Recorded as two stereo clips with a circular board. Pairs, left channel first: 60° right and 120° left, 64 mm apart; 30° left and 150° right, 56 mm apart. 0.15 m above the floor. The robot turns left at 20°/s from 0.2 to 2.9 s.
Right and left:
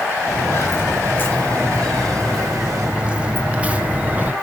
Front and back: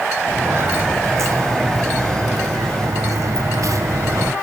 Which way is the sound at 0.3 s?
100° right.